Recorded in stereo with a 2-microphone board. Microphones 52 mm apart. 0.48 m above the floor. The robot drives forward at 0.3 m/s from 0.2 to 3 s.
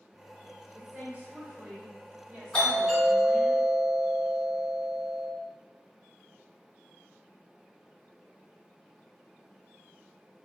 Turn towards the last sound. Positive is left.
turn(degrees=15)  # may be behind; listen again after turning